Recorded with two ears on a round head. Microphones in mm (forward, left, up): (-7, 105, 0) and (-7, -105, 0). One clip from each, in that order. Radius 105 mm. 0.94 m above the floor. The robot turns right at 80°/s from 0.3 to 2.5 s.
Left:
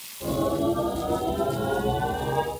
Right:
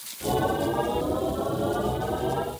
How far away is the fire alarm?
No fire alarm in this recording.